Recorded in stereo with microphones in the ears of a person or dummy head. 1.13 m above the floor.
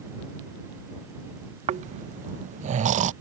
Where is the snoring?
45° right (ahead or behind).